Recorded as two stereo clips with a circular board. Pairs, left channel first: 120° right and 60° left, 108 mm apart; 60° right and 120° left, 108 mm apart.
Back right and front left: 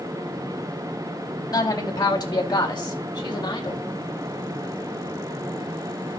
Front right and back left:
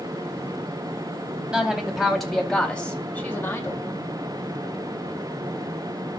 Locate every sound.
1.5 s a woman speaking: 160° right, 2 m; by 3.8 s 110° right, 1.9 m